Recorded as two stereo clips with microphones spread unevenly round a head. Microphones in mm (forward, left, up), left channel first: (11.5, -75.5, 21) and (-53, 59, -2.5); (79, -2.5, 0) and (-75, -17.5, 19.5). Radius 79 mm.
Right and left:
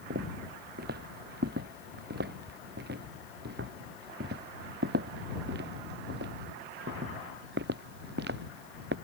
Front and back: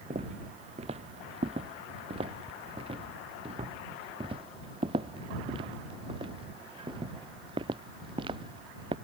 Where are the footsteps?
135° left; by 8.9 s 125° left.